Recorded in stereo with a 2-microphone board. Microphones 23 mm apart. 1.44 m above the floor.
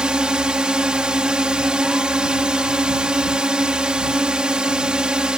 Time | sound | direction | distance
0.0 | a drone | 40° right (ahead or behind) | ?